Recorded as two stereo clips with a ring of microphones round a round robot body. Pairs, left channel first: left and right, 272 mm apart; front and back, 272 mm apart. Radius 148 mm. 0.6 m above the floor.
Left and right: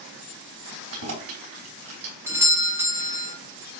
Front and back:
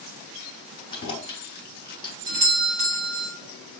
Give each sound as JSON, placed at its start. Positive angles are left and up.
{"t": 0.9, "sound": "keys jangling", "azimuth_deg": -75, "distance_m": 2.5}
{"t": 2.3, "sound": "a doorbell", "azimuth_deg": -160, "distance_m": 1.3}